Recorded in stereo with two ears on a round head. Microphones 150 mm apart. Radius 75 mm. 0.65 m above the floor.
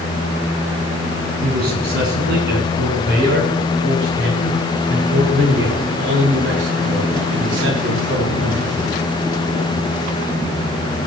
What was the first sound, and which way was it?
A man speaking, 60° right (ahead or behind).